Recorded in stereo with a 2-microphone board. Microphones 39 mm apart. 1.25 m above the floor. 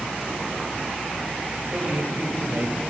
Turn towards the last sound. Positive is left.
turn(degrees=-60)  # may be behind; listen again after turning